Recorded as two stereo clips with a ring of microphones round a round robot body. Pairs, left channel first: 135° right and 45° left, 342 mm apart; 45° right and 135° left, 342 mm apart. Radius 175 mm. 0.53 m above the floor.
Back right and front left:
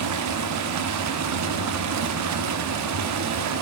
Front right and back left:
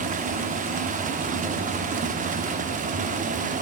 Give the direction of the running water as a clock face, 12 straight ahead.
10 o'clock.